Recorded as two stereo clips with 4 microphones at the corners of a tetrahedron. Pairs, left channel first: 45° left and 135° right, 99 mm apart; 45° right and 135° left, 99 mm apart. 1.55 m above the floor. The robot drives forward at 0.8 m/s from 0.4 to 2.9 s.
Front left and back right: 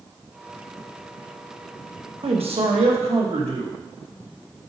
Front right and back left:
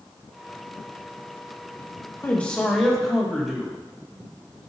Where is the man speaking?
115° right, 1.2 m; by 3.7 s 135° right, 1.5 m.